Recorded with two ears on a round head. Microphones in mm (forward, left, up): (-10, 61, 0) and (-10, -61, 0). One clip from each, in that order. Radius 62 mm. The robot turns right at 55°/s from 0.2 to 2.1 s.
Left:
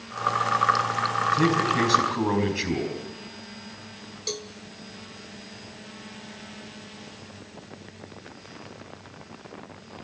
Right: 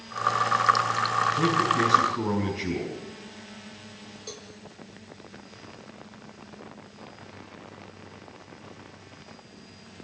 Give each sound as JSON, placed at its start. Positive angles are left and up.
{"t": 1.3, "sound": "a man speaking", "azimuth_deg": 30, "distance_m": 4.5}
{"t": 4.3, "sound": "a cowbell", "side_deg": 60, "distance_m": 1.4}